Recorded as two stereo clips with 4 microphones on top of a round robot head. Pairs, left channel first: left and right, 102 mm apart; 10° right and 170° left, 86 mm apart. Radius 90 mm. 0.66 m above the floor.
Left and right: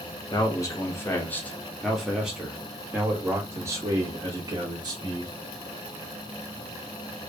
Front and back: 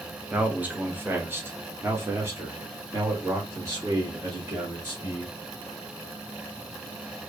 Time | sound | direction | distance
0.3 | a man speaking | 105° left | 1.4 m